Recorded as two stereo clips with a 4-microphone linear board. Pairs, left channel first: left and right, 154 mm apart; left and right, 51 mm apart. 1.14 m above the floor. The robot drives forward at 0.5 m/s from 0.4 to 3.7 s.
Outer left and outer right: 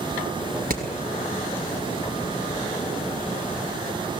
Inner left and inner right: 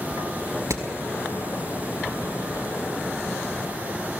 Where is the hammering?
75° right (ahead or behind), 4.5 m.